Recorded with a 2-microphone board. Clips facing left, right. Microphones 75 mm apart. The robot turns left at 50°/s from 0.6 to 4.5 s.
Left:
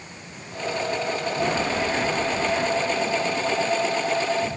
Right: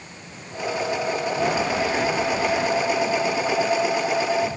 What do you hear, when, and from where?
Only background noise.